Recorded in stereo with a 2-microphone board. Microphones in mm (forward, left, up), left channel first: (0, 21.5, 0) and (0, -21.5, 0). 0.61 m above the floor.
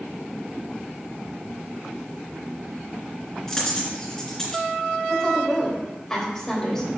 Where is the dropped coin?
15° left (ahead or behind), 3 m.